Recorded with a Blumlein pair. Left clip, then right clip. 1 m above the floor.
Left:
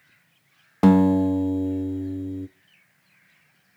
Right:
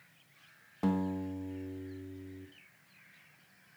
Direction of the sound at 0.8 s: 35° left.